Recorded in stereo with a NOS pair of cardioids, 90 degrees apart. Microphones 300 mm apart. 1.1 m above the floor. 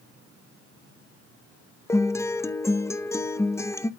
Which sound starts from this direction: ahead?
A guitar, at 1.9 s.